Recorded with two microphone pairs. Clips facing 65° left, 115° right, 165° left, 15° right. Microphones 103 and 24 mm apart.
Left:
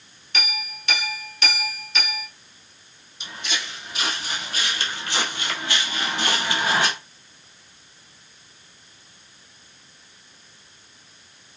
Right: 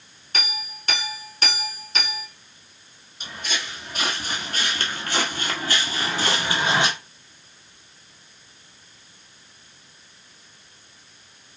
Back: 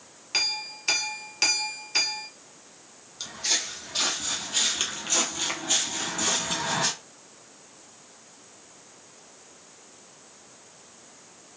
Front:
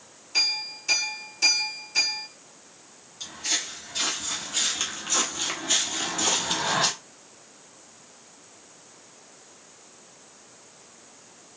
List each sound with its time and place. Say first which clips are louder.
0.3 s a clink: left 1 dB, front 2 dB; 165° right, 0.9 m
3.2 s footsteps: even, back 1 dB; 155° right, 1.6 m; by 6.9 s 50° right, 1.2 m